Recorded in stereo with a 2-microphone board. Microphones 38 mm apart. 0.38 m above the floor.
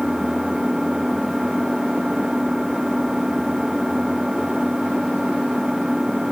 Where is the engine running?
10° right (ahead or behind).